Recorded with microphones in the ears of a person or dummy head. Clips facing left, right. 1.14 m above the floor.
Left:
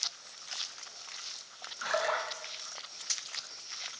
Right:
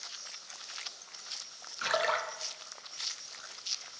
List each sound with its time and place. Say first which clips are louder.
1.8 s a splash: even; 45° right (ahead or behind), 0.6 m